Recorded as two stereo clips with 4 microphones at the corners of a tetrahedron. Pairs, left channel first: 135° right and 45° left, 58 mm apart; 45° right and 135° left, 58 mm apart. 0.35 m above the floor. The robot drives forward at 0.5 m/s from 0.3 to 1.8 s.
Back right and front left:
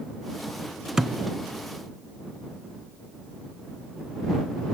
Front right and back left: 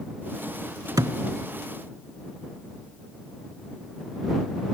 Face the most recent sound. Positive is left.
turn(degrees=150)